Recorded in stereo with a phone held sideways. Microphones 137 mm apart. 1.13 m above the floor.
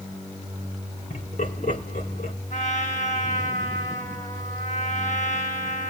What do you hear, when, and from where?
1.1 s laughter: 90° left, 4.5 m
2.5 s a trumpet: 65° left (ahead or behind), 8.5 m